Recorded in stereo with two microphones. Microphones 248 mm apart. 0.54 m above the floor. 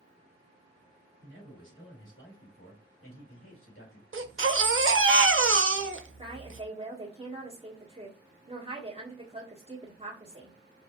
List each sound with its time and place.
1.2 s a man speaking: 45° left (ahead or behind), 2 m; by 4.0 s 60° left (ahead or behind), 2 m
4.1 s a baby crying: 55° right (ahead or behind), 0.6 m
6.2 s a woman speaking: 25° right (ahead or behind), 1.3 m